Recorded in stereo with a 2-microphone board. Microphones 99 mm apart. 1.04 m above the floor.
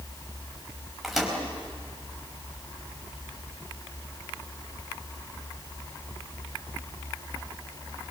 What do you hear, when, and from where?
1.0 s a microwave: centre (ahead or behind), 4.5 m